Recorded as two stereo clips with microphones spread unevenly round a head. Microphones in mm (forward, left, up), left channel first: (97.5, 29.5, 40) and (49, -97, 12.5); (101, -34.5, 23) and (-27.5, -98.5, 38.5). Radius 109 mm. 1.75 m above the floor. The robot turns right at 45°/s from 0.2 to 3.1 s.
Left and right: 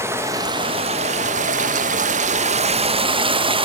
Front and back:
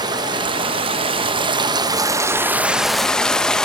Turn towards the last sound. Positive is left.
turn(degrees=-65)